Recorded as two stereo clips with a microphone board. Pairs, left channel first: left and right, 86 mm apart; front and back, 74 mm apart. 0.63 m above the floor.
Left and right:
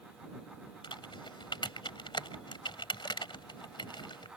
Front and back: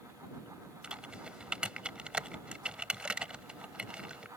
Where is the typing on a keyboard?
105° left.